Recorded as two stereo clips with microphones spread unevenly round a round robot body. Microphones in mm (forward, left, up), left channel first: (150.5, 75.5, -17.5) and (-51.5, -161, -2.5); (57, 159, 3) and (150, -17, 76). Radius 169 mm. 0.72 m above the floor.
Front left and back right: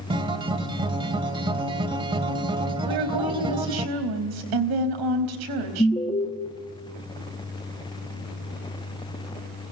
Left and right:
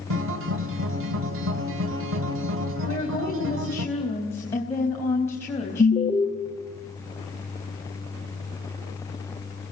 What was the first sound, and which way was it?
A guitar, 55° right.